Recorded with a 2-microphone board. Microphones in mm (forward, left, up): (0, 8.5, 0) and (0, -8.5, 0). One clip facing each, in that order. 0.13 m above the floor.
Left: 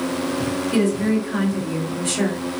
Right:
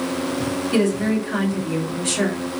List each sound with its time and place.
0.7 s a woman speaking: 25° right (ahead or behind), 1.8 m